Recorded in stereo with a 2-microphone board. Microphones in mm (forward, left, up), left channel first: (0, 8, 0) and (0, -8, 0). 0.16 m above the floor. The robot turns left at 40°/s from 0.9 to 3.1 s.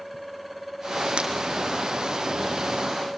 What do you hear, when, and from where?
1.2 s breaking glass: 75° right (ahead or behind), 3 m; by 1.3 s 80° right, 3 m